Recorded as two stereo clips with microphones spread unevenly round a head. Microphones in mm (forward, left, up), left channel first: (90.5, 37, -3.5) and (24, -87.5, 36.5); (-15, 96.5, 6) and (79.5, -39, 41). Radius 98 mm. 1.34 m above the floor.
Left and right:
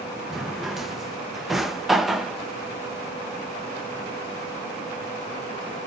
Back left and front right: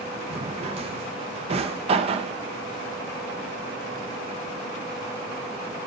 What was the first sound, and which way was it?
A drawer, 50° right.